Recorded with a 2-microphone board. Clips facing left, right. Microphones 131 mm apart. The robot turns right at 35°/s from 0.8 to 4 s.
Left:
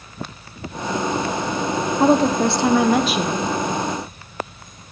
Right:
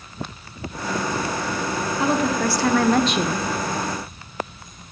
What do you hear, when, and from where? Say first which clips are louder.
2.0 s a woman speaking: left 6 dB; 140° left, 0.7 m; by 3.4 s 170° right, 0.7 m